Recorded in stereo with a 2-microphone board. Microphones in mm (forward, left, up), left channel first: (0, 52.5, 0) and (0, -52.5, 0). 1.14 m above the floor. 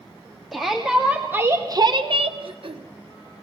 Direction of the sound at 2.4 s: 60° right (ahead or behind).